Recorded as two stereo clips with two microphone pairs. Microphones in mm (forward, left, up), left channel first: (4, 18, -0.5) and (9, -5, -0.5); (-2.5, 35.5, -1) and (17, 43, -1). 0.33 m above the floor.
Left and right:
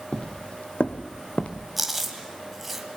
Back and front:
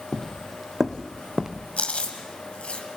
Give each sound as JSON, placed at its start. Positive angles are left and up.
{"t": 0.1, "sound": "footsteps", "azimuth_deg": 145, "distance_m": 0.6}
{"t": 1.8, "sound": "chewing", "azimuth_deg": -160, "distance_m": 2.0}